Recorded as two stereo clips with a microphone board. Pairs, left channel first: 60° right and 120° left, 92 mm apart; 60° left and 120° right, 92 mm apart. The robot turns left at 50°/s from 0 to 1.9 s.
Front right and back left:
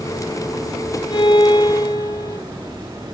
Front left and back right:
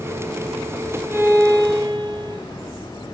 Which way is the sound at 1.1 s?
65° right.